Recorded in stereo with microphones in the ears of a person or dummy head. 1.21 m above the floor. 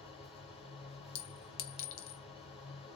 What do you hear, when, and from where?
0.0 s a machine running: 30° left (ahead or behind), 2.5 m
1.1 s a clink: 80° left, 0.7 m